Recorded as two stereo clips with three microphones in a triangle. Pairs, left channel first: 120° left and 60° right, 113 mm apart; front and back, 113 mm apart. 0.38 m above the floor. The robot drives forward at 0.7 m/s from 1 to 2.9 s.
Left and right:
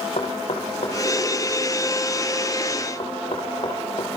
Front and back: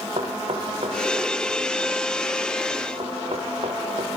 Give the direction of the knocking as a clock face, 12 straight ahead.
7 o'clock.